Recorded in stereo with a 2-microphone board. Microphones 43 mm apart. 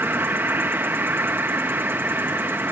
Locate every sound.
0.0 s an insect: 60° right (ahead or behind)